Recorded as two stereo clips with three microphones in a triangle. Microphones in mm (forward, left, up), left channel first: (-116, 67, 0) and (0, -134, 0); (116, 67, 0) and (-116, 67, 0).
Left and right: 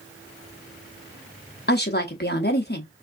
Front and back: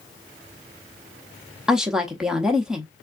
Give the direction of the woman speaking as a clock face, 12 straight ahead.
9 o'clock.